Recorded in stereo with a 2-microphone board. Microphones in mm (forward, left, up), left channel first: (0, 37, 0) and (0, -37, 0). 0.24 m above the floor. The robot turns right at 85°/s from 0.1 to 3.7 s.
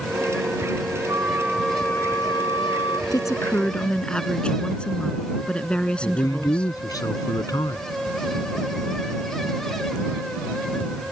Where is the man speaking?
60° left (ahead or behind).